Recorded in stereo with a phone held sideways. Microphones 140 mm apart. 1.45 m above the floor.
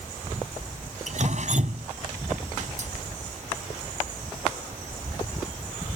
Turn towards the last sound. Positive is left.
turn(degrees=-55)  # may be behind; listen again after turning